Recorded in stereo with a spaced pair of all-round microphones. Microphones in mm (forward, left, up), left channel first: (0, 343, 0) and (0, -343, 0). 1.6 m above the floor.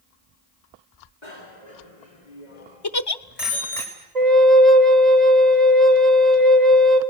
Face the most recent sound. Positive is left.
turn(degrees=-70)  # may be behind; listen again after turning